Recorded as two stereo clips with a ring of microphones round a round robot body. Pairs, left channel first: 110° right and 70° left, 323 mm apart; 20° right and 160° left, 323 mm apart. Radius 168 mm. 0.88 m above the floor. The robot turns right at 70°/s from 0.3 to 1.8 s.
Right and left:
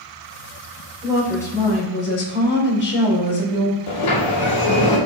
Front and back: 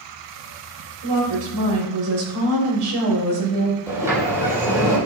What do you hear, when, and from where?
1.0 s a woman speaking: 140° left, 5 m; by 3.8 s 165° right, 5 m
3.9 s a sliding door: 120° right, 4.5 m